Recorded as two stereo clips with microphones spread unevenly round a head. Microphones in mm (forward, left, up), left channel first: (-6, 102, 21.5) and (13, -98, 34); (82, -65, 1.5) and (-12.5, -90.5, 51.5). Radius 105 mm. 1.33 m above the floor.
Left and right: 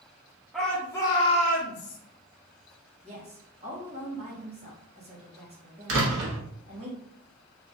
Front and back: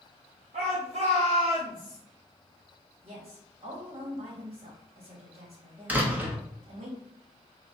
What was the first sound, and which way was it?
A shout, 175° right.